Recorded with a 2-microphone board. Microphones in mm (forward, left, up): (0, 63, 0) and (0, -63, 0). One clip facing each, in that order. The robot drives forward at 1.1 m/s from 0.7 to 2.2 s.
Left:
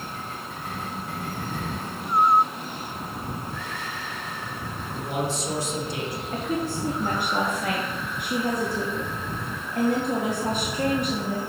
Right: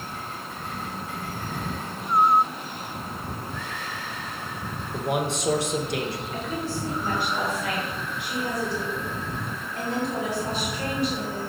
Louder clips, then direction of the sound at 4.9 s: Right 2 dB; 70° right (ahead or behind).